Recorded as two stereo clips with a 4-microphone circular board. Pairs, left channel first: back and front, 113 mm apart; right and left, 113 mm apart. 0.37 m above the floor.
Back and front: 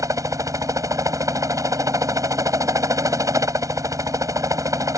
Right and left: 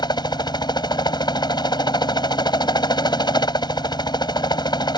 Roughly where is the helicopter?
Ahead right.